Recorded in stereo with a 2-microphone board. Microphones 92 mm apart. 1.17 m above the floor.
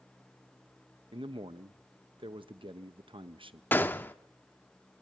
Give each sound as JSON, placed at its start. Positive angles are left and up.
{"t": 1.1, "sound": "a man speaking", "side_deg": -65, "distance_m": 1.1}
{"t": 3.7, "sound": "a gunshot", "side_deg": 20, "distance_m": 0.9}